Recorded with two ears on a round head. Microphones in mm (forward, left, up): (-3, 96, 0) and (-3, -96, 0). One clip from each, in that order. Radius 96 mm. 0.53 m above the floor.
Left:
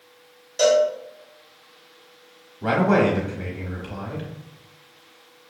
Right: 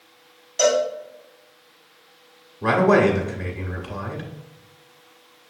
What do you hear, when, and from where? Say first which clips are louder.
0.6 s a cowbell: left 2 dB; 10° left (ahead or behind), 1.1 m
2.6 s a man speaking: right 3 dB; 10° right (ahead or behind), 1.1 m